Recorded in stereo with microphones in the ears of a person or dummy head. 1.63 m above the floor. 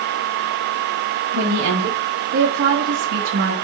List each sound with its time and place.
1.3 s a woman speaking: 85° right, 3.5 m; by 3.5 s 60° right (ahead or behind), 2.5 m